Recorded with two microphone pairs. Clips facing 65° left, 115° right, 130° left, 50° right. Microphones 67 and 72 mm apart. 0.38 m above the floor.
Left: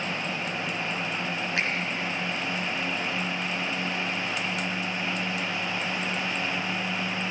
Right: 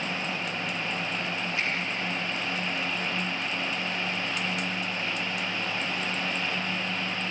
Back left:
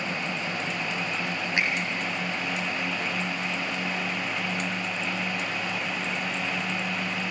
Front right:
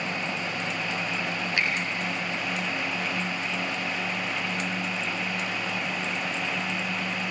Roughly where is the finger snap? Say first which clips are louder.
Left 3 dB, back left 1 dB; ahead left.